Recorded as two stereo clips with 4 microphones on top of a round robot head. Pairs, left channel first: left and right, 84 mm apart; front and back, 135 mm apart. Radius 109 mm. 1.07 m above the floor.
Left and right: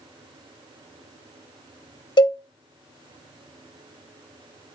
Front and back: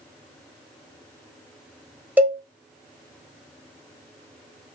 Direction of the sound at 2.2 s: 105° left.